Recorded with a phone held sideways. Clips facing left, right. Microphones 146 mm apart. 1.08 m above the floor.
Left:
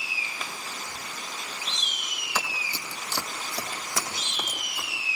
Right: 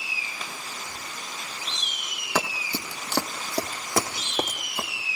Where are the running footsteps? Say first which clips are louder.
Right 6 dB; 70° right (ahead or behind), 3 m; by 4.9 s 65° right (ahead or behind), 4.5 m.